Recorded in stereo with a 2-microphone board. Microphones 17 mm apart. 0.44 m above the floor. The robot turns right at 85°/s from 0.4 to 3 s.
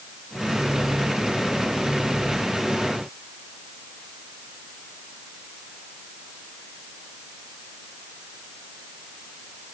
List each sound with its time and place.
Only background noise.